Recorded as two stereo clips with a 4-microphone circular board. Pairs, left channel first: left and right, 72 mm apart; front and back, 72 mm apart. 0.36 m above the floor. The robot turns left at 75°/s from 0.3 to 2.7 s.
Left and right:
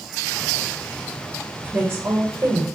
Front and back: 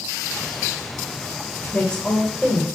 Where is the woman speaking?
45° right, 1.3 m; by 2.7 s 120° right, 1.3 m.